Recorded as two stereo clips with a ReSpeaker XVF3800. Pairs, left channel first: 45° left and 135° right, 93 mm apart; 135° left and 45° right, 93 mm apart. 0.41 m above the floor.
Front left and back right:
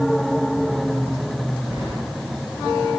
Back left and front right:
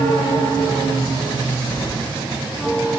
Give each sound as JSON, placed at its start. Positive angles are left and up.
{"t": 1.7, "sound": "keys jangling", "azimuth_deg": 75, "distance_m": 4.0}